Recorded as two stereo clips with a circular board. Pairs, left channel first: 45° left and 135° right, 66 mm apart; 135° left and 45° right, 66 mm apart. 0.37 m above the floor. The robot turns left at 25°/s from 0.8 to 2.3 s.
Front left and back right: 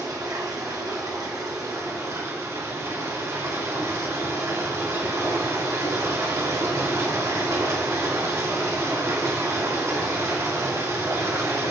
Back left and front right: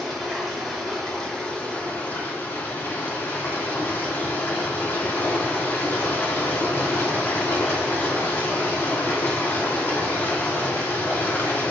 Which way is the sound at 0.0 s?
130° right.